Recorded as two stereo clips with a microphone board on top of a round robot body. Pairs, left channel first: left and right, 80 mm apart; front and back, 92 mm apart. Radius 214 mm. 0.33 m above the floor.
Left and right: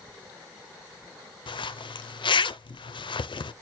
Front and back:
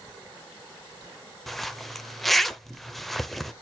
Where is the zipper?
90° left, 0.8 m.